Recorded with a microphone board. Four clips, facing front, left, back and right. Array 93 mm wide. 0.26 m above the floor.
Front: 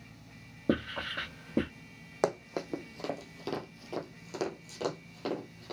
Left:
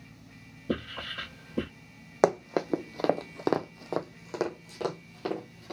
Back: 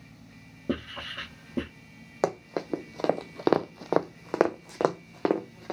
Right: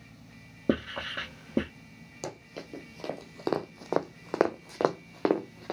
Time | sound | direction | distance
0.7 | writing | 70° right | 2.5 m
2.2 | running footsteps | 100° left | 0.8 m